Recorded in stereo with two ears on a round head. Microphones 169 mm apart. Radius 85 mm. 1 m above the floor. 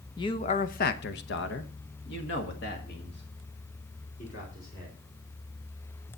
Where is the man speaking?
20° left (ahead or behind), 1.0 m; by 5.0 s 50° left (ahead or behind), 3.5 m.